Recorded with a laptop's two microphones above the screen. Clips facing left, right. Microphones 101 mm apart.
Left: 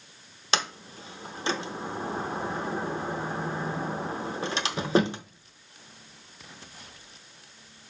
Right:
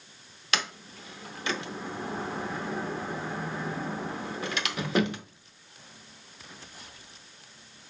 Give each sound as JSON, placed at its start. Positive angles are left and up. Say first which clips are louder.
{"t": 0.5, "sound": "a sliding door", "louder": "left 3 dB", "side_deg": 30, "distance_m": 0.6}